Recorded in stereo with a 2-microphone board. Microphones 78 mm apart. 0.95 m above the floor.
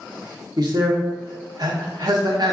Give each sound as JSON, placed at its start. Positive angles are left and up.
{"t": 0.6, "sound": "a man speaking", "side_deg": -60, "distance_m": 0.8}